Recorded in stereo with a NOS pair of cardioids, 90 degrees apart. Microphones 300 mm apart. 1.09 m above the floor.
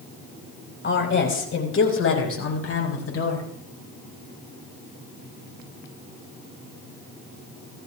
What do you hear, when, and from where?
0.8 s a woman speaking: 40° left, 4.5 m; by 3.4 s 55° left, 6 m